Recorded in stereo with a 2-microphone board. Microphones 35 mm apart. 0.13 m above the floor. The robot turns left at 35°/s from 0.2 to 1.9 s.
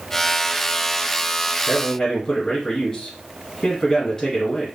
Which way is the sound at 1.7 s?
15° left (ahead or behind).